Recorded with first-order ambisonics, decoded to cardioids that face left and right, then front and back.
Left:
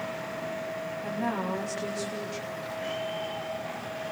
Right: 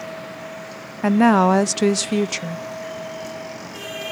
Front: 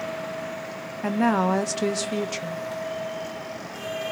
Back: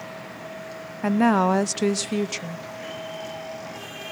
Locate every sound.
1.0 s a woman speaking: 105° right, 0.7 m